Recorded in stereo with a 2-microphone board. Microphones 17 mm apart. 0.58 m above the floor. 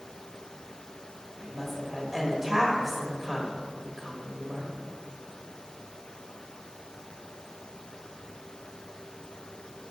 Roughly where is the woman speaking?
Centre.